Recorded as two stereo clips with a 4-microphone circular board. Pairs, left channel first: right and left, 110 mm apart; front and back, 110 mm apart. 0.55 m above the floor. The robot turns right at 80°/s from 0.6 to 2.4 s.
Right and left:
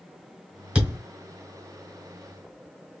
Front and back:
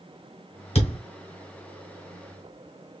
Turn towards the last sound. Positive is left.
turn(degrees=140)